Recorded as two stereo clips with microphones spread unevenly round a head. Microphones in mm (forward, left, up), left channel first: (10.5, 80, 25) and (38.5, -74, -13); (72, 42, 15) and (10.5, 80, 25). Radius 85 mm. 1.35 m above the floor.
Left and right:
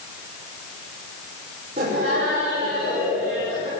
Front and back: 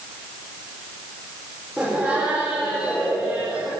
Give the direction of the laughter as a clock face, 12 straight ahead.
4 o'clock.